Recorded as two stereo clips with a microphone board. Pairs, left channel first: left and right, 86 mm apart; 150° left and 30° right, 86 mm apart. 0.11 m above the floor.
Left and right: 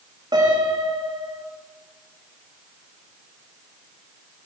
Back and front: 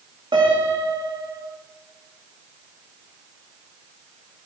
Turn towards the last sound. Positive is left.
turn(degrees=-55)